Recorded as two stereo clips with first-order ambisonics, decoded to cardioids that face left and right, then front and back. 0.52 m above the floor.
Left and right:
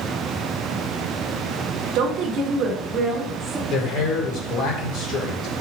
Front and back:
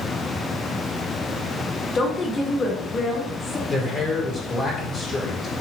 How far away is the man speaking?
About 2.5 m.